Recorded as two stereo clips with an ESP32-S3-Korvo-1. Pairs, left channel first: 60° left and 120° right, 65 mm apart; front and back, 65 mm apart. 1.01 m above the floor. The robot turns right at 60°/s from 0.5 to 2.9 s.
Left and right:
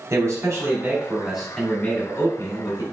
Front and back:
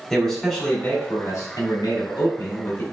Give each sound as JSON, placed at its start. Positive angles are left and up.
{"t": 0.1, "sound": "a man speaking", "azimuth_deg": -85, "distance_m": 2.0}